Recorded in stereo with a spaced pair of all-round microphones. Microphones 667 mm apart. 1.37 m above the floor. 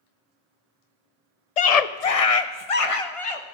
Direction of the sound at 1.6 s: 70° left (ahead or behind).